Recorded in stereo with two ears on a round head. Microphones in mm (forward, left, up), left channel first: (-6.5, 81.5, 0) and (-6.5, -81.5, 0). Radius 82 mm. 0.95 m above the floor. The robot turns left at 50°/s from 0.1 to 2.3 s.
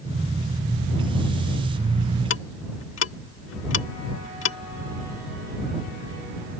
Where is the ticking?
75° left (ahead or behind).